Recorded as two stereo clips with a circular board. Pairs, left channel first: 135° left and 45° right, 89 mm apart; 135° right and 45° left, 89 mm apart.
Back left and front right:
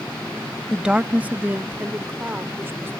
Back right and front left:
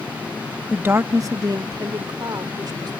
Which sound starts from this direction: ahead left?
A woman speaking, at 0.7 s.